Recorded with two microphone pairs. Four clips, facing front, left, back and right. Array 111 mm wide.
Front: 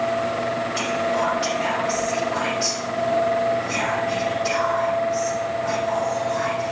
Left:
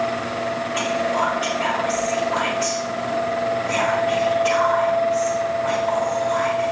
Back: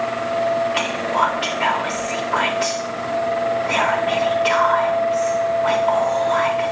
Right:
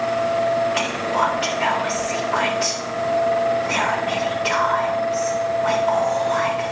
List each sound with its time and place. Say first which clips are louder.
0.7 s whispering: even, back 2 dB; 155° right, 1.6 m